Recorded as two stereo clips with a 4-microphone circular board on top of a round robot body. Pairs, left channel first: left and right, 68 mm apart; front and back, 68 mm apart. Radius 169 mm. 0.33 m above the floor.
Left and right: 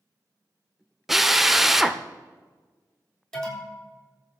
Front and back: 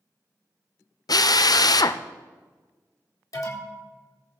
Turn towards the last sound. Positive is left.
turn(degrees=10)